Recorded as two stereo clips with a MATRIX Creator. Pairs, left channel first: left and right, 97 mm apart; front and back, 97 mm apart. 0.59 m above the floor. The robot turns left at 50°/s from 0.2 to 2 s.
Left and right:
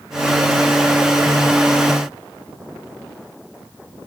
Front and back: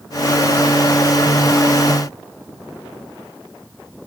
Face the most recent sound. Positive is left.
No sound to turn to.